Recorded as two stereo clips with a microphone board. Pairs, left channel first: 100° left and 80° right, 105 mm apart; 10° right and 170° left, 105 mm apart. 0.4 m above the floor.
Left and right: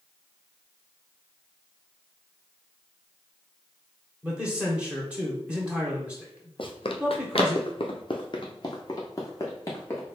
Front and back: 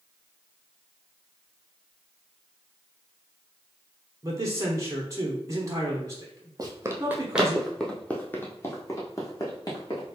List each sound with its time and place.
4.2 s a man speaking: 150° right, 1.1 m
6.6 s running footsteps: 125° left, 0.8 m; by 10.2 s 35° left, 1.7 m